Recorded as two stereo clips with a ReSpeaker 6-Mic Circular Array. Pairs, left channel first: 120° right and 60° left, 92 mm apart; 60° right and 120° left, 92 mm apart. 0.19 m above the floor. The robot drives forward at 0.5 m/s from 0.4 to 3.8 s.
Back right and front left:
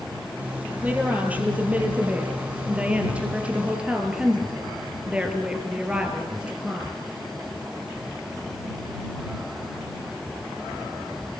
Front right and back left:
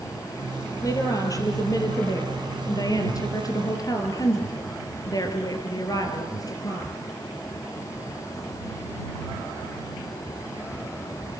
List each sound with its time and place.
0.8 s a woman speaking: 10° right, 5 m; by 6.9 s 15° right, 3.5 m